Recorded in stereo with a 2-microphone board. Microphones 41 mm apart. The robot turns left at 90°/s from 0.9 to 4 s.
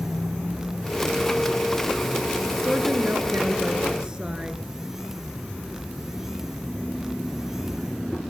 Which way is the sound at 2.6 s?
35° right.